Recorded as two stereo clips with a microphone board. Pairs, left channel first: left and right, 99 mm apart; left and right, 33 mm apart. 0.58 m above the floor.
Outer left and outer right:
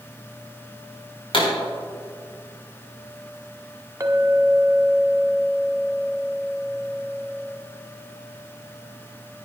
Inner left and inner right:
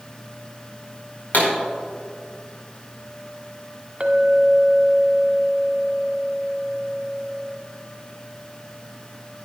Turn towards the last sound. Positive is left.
turn(degrees=-30)  # may be behind; listen again after turning